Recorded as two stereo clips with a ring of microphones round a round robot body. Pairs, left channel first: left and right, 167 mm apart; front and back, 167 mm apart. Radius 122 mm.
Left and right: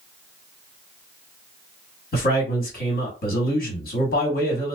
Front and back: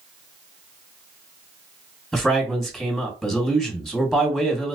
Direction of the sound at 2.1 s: 90° left.